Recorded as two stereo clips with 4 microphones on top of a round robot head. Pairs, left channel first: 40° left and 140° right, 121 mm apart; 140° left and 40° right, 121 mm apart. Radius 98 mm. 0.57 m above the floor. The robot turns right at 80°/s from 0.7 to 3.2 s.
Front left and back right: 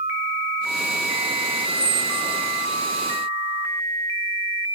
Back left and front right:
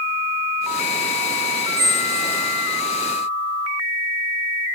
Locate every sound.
1.8 s a squeak: 65° right, 3 m; by 2.5 s straight ahead, 3 m